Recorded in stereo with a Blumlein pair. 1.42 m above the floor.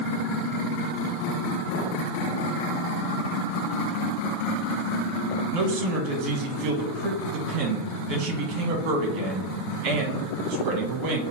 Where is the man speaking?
55° right, 1.2 m.